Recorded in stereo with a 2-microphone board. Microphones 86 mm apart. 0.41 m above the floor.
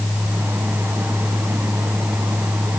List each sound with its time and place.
Only background noise.